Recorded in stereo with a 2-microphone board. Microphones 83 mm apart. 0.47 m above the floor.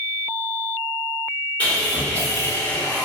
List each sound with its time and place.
1.6 s sawing: 20° left (ahead or behind), 1.5 m